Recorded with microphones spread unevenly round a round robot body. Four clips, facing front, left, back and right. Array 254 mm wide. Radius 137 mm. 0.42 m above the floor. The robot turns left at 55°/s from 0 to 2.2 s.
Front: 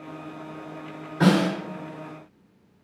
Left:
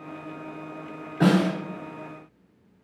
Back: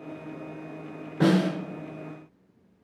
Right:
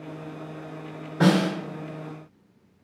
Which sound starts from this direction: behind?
A snare drum, at 1.2 s.